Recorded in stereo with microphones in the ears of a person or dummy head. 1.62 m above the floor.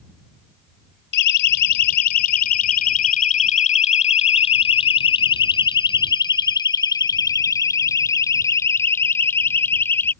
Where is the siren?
65° left (ahead or behind); by 10.1 s 10° left (ahead or behind).